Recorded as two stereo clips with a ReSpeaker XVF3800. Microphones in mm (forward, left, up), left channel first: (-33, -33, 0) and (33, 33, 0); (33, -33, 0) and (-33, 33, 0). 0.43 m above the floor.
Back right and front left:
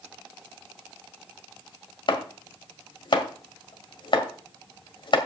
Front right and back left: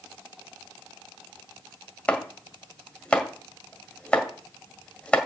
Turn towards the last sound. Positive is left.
turn(degrees=-120)